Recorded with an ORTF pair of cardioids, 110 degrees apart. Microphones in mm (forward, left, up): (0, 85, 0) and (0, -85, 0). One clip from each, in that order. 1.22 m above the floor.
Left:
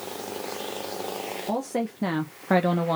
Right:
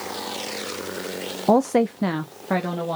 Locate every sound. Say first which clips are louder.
1.5 s a woman speaking: right 12 dB; 60° right, 0.5 m; by 3.0 s 20° left, 1.0 m